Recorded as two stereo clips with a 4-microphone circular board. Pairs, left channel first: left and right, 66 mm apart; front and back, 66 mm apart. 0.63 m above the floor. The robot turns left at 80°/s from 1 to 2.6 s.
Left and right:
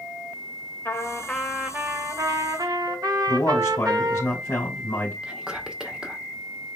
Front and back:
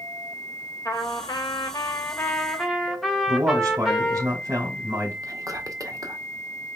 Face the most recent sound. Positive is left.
turn(degrees=-165)